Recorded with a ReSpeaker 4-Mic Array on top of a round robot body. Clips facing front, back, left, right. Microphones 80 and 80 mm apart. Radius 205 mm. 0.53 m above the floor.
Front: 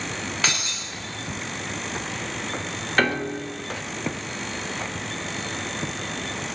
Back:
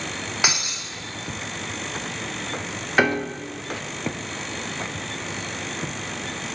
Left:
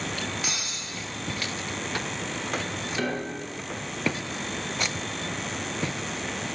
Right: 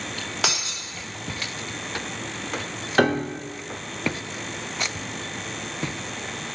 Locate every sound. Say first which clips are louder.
0.4 s breaking glass: back 3 dB, right 5 dB; 105° right, 1.3 m
3.0 s a piano: back 2 dB, right 10 dB; 100° right, 1.1 m